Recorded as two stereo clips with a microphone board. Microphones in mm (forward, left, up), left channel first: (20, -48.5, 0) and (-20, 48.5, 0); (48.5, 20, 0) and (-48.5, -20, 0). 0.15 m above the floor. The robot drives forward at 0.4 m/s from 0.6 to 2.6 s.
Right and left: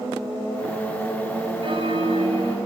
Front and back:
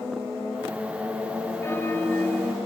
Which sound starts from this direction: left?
A bell, at 1.6 s.